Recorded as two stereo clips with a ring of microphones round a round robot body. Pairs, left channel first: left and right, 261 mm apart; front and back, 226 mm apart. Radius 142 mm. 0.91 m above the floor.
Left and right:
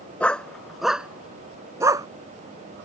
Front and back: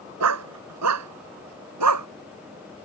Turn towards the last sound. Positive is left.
turn(degrees=-165)